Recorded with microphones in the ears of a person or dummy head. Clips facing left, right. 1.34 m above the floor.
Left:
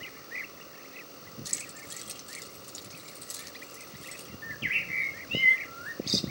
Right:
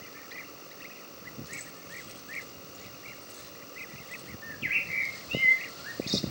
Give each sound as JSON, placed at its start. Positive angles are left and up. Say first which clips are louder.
{"t": 1.4, "sound": "keys jangling", "louder": "right 1 dB", "side_deg": 70, "distance_m": 3.0}
{"t": 4.4, "sound": "a bird", "louder": "left 1 dB", "side_deg": 5, "distance_m": 1.3}